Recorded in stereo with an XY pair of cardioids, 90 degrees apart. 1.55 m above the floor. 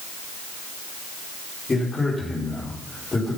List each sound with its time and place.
1.7 s a man speaking: 30° left, 4.5 m